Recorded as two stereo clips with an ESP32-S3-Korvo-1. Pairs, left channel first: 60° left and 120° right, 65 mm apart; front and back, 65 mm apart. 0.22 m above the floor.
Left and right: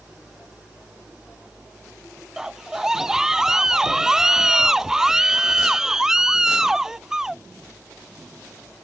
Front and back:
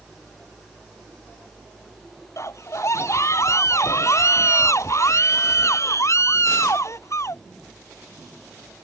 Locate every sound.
2.4 s a scream: 40° right